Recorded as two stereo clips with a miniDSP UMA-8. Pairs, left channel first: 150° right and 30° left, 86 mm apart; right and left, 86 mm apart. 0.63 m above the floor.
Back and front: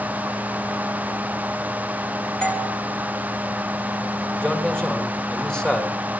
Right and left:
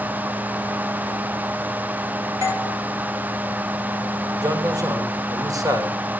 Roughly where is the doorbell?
Behind left.